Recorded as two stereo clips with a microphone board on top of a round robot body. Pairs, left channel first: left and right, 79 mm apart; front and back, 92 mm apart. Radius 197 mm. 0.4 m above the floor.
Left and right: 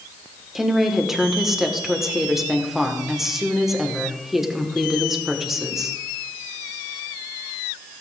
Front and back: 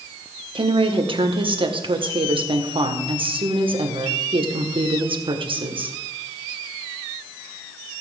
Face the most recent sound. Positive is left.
turn(degrees=-175)